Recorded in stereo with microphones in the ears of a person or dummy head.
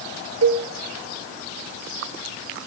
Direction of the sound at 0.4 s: 70° right (ahead or behind).